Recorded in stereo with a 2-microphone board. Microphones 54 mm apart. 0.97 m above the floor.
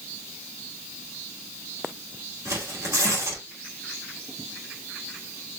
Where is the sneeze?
No sneeze in this recording.